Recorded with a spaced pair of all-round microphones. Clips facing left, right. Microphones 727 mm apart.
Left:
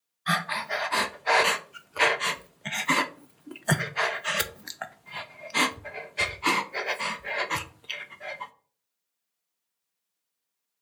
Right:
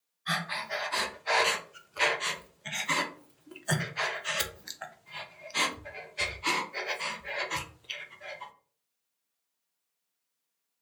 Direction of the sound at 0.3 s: 75° left (ahead or behind).